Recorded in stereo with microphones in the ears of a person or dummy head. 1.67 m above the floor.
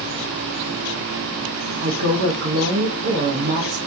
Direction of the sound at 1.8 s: 60° right (ahead or behind).